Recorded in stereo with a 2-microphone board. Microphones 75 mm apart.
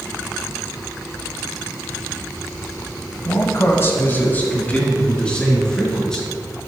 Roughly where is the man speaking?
Left.